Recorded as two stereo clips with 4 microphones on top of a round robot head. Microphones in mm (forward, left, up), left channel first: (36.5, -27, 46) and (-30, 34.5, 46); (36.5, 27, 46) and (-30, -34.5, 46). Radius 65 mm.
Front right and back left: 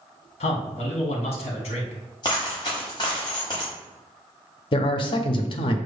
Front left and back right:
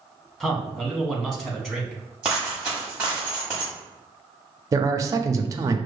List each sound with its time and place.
0.4 s a man speaking: 45° right, 1.1 m
2.2 s a dropped coin: 65° right, 1.2 m
4.7 s a man speaking: 80° right, 0.5 m